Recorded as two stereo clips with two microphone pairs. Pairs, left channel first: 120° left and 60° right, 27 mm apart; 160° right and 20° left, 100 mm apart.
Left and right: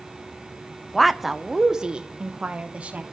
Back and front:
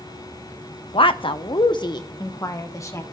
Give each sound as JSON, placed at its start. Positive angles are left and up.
{"t": 0.9, "sound": "a woman speaking", "azimuth_deg": -160, "distance_m": 0.8}